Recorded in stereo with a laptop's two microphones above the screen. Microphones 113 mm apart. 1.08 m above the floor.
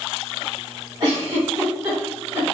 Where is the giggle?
40° right (ahead or behind), 1.8 m.